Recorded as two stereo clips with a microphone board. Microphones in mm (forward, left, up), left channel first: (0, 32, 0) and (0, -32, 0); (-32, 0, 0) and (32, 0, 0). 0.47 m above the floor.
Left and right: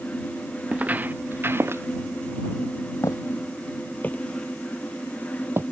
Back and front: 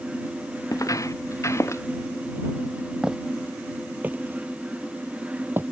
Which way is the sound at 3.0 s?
80° left.